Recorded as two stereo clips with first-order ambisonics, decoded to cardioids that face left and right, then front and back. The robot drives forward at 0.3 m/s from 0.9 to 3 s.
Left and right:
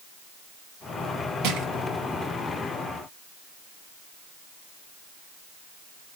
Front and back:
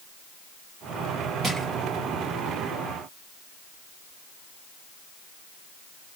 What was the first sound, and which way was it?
Crushing, 110° right.